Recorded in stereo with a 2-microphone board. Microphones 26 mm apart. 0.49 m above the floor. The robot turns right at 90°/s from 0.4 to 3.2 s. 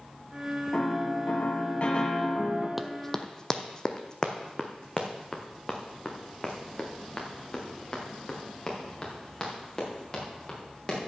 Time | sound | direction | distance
0.7 | a piano | 30° left | 1.8 m
2.8 | running footsteps | 10° right (ahead or behind) | 0.7 m